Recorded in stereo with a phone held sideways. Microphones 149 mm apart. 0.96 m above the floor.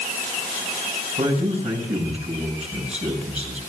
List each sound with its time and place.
1.2 s a man speaking: 45° right (ahead or behind), 6 m